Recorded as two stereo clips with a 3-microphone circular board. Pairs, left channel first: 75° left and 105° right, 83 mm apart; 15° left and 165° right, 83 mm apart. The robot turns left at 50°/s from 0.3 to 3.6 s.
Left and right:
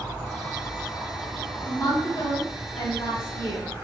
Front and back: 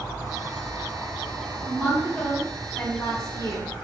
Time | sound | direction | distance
1.6 | a woman speaking | 135° left | 2 m